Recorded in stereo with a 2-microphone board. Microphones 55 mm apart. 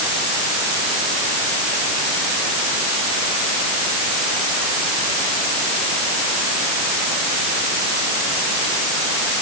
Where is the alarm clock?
I don't hear an alarm clock.